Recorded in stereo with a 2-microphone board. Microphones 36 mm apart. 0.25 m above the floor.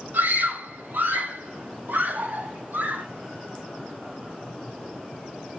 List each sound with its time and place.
0.1 s a scream: 80° right, 9.5 m